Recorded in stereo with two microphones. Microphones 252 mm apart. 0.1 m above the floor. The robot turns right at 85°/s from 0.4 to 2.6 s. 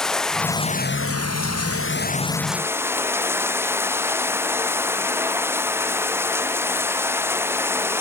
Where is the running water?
Straight ahead; by 8.0 s 170° right.